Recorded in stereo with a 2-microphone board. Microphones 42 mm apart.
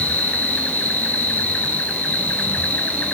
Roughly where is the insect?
Left.